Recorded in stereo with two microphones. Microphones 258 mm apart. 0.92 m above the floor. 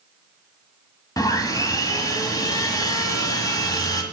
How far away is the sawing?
About 1.6 m.